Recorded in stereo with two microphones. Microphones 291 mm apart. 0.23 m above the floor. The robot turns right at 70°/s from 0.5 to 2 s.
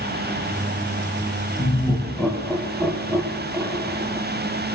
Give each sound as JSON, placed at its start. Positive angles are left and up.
{"t": 1.6, "sound": "laughter", "side_deg": 20, "distance_m": 1.2}